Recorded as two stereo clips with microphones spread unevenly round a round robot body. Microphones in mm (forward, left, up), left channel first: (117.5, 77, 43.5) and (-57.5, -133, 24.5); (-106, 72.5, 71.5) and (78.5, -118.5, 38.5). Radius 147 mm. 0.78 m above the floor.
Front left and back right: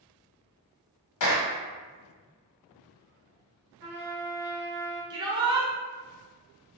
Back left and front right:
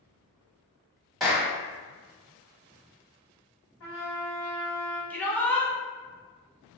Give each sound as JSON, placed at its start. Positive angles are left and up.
{"t": 1.2, "sound": "a clap", "azimuth_deg": 40, "distance_m": 1.2}
{"t": 3.8, "sound": "a trumpet", "azimuth_deg": 175, "distance_m": 2.0}
{"t": 5.1, "sound": "a shout", "azimuth_deg": -135, "distance_m": 0.7}